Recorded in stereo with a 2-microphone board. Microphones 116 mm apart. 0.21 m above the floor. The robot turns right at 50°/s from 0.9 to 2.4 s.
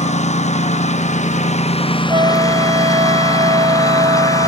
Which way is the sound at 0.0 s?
75° left.